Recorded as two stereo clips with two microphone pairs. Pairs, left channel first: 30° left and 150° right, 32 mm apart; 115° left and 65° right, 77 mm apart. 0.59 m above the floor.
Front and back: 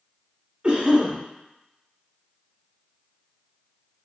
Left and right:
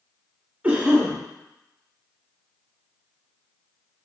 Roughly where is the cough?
Behind right.